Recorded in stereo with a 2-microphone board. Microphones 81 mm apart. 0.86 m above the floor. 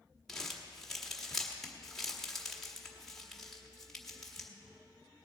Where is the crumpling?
5° left (ahead or behind), 1.5 m.